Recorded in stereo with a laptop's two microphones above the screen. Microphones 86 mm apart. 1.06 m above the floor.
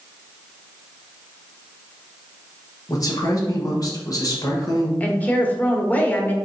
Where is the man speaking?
45° left (ahead or behind), 0.9 m.